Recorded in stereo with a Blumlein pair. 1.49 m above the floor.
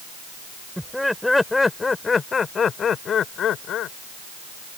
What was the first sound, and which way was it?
Laughter, straight ahead.